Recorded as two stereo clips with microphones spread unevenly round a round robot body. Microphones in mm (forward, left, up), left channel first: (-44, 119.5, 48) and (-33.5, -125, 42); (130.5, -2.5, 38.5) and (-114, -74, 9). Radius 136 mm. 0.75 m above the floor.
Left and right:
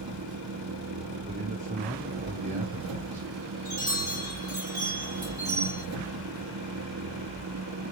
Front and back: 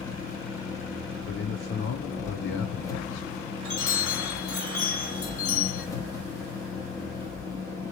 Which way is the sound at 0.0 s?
65° right.